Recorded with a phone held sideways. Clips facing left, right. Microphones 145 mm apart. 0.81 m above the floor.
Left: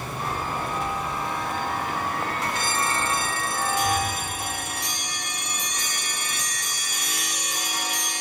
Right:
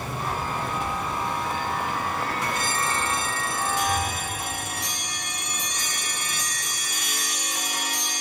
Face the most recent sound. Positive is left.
turn(degrees=50)  # may be behind; listen again after turning